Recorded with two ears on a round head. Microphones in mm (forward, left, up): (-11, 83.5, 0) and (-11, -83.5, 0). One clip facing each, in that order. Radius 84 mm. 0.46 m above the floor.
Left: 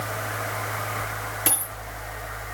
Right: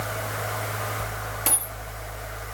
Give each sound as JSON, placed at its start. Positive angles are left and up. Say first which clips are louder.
{"t": 1.5, "sound": "a dropped coin", "louder": "left 2 dB", "side_deg": 5, "distance_m": 2.0}